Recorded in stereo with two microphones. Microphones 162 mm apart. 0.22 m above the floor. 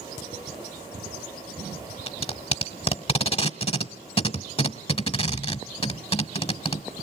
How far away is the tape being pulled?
About 0.9 m.